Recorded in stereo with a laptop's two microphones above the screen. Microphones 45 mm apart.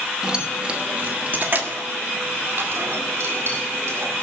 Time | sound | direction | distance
0.2 | keys jangling | 15° right (ahead or behind) | 1.1 m